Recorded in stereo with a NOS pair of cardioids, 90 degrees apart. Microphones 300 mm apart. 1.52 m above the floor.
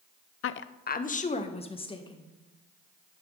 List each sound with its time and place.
0.4 s a woman speaking: 50° left, 0.6 m; by 2.3 s 15° left, 1.9 m